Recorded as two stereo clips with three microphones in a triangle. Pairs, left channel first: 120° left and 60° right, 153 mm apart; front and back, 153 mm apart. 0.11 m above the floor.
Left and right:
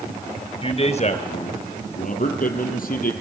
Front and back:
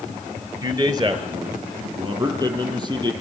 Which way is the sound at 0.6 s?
130° left.